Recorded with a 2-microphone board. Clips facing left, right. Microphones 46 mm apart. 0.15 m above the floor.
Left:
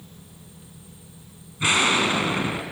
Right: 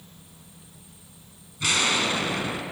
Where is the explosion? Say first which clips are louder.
Left 4 dB; 25° left (ahead or behind), 1.0 m.